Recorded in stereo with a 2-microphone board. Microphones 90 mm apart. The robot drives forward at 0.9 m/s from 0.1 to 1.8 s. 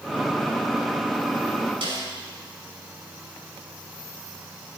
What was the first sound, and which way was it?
A snare drum, 75° right (ahead or behind).